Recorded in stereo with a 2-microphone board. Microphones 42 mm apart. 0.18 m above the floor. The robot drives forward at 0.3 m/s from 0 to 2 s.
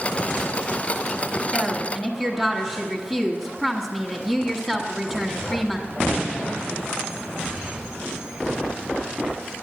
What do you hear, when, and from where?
1.5 s a woman speaking: 5° left (ahead or behind), 1.1 m; by 5.9 s centre (ahead or behind), 1.2 m